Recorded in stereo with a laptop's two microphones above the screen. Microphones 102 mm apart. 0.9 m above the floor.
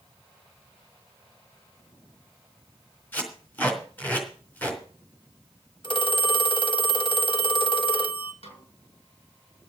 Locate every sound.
3.1 s tape being pulled: 15° left (ahead or behind), 3.5 m
5.8 s a phone ringing: 50° left (ahead or behind), 1.0 m
8.4 s a snare drum: 90° left, 6.5 m